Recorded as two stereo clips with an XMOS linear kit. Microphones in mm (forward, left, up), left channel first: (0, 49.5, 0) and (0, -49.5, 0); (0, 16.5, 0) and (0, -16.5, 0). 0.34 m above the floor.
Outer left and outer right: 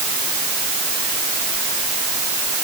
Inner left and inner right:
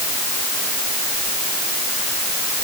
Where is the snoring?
I don't hear snoring.